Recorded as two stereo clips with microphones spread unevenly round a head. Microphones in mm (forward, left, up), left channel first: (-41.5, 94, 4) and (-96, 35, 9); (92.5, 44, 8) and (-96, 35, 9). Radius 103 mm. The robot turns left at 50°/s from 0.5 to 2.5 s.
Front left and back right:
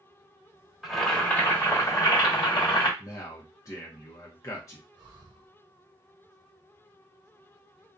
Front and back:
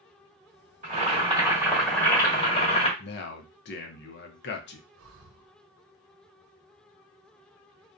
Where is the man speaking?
Straight ahead, 0.5 m.